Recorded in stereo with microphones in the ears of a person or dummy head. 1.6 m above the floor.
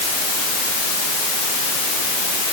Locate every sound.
Only background noise.